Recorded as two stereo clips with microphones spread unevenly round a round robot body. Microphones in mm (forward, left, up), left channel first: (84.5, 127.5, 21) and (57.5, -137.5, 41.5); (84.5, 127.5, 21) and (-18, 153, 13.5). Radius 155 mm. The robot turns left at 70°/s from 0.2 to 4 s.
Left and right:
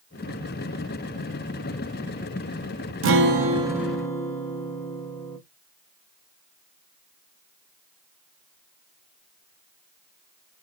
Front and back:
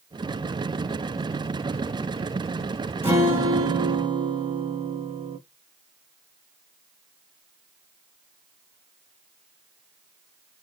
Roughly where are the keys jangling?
No keys jangling in this recording.